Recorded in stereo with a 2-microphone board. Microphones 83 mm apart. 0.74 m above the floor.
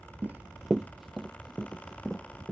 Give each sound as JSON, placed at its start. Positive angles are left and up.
{"t": 0.2, "sound": "running footsteps", "side_deg": -20}